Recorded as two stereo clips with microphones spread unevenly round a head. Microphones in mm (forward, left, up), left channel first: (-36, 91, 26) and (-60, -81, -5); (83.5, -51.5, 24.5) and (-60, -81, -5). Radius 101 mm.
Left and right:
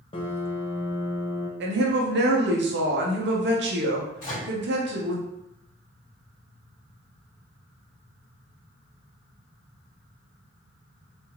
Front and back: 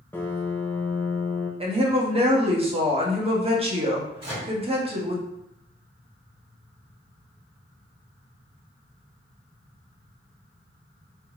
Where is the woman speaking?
120° right, 1.4 m.